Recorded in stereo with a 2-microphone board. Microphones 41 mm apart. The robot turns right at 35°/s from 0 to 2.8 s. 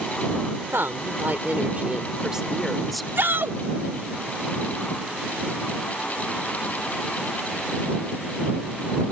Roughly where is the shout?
Right.